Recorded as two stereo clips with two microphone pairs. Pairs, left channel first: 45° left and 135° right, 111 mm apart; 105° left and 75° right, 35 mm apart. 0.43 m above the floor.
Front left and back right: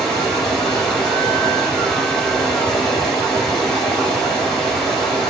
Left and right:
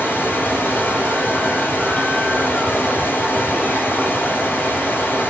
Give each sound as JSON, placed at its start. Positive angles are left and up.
{"t": 0.0, "sound": "running water", "azimuth_deg": 130, "distance_m": 1.4}